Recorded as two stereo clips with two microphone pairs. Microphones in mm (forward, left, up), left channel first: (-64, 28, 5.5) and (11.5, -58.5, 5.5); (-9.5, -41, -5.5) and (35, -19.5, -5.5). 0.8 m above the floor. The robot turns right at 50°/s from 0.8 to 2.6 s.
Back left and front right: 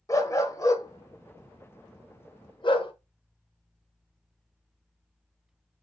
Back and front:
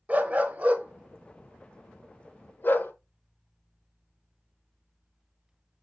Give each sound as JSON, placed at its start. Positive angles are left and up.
{"t": 0.1, "sound": "a dog barking", "azimuth_deg": 75, "distance_m": 0.8}